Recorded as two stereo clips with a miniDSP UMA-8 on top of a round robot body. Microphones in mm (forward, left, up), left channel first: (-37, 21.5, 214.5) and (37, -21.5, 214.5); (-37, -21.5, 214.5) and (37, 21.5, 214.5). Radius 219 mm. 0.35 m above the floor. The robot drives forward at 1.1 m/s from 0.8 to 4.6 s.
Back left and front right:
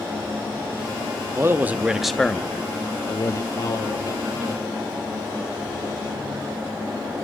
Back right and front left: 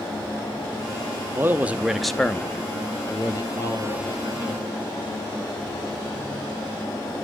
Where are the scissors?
I don't hear scissors.